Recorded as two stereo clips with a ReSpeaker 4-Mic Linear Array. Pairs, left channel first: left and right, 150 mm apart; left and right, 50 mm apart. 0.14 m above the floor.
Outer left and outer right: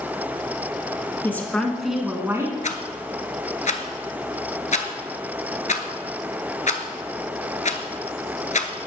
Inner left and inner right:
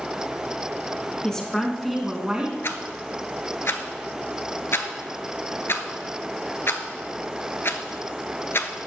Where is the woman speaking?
15° left (ahead or behind), 1.9 m; by 2.5 s 25° right (ahead or behind), 1.6 m.